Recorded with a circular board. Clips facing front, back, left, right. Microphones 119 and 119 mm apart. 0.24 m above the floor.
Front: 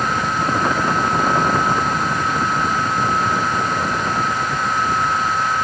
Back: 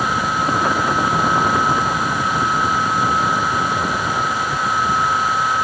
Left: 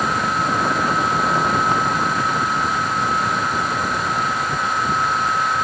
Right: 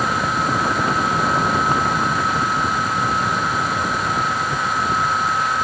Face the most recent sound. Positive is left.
No sound to turn to.